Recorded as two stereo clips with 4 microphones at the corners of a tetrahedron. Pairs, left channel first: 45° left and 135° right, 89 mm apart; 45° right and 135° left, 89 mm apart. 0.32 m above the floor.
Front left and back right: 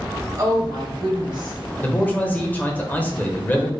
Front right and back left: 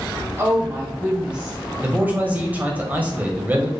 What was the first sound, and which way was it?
A woman speaking, 170° right.